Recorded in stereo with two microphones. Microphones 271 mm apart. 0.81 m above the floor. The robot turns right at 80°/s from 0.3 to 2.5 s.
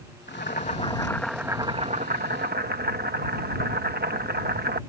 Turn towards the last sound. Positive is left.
turn(degrees=-85)